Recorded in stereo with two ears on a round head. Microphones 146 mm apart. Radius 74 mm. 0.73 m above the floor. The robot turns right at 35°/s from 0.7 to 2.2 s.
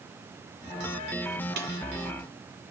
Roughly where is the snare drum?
Right.